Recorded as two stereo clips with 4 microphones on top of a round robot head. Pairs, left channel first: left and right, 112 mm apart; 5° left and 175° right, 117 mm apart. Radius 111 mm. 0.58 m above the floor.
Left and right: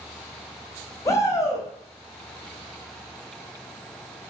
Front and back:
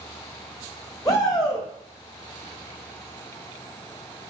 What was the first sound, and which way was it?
A shout, 40° left.